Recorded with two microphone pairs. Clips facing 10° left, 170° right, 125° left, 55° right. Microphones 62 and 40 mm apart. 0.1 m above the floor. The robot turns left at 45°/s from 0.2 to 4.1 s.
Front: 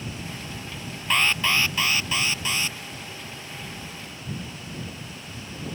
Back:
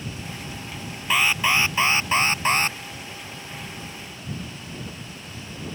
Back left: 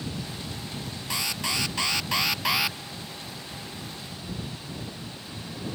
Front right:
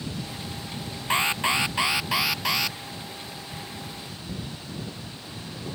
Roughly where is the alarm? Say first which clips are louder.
Back 2 dB, front right 7 dB; right.